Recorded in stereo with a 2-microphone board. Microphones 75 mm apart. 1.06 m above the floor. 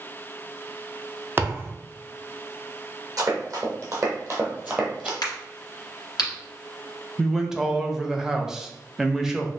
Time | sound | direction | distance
1.4 | a thud | 30° right (ahead or behind) | 0.6 m
3.2 | running footsteps | 50° right (ahead or behind) | 2 m
5.2 | a crack | 75° left (ahead or behind) | 1.6 m
7.2 | a man speaking | 5° right (ahead or behind) | 0.6 m